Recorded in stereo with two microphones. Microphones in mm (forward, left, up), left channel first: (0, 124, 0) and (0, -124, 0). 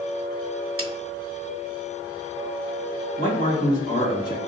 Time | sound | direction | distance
0.8 | a snare drum | 60° right (ahead or behind) | 0.6 m
3.2 | a man speaking | 35° left (ahead or behind) | 1.7 m